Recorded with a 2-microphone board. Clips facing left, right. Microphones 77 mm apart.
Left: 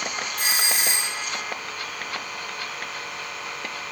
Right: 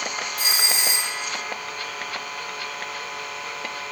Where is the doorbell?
60° left (ahead or behind), 4 m.